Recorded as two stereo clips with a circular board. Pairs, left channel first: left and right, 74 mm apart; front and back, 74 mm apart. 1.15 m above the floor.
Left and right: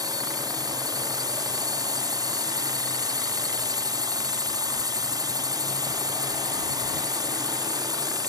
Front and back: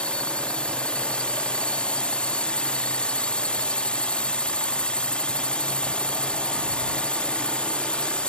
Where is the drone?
75° right.